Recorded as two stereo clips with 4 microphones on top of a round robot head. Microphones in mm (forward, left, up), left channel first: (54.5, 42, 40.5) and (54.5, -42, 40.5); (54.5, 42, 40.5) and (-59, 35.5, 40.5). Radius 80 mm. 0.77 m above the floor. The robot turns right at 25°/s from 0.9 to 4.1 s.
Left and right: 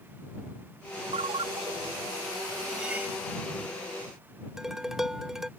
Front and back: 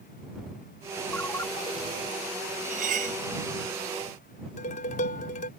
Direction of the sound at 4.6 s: 5° right.